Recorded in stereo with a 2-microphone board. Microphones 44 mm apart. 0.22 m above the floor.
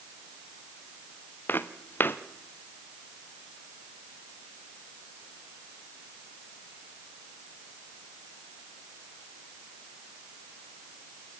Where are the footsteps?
55° left (ahead or behind), 1.5 m.